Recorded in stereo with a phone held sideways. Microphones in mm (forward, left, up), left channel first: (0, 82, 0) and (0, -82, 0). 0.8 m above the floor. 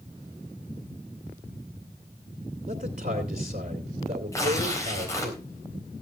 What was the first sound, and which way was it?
A man speaking, 55° right (ahead or behind).